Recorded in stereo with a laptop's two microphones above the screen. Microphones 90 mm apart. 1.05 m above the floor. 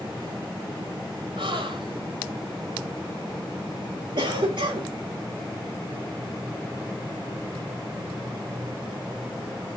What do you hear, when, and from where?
1.4 s a gasp: 70° right (ahead or behind), 2 m
4.2 s a cough: 65° right (ahead or behind), 2.0 m